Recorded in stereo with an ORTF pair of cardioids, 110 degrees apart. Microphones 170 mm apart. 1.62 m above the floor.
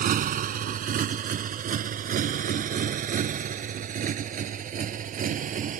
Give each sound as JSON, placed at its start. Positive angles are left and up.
{"t": 0.0, "sound": "a motorcycle", "azimuth_deg": -55}